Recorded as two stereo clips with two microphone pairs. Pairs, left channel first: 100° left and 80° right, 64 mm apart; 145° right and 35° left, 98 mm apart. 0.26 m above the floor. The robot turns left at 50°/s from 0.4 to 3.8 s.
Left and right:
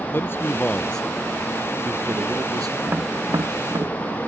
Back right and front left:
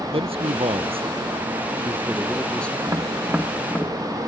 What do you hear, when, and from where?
0.1 s a man speaking: 45° left; by 2.8 s 70° right
2.9 s tapping: 20° right; by 4.2 s 65° right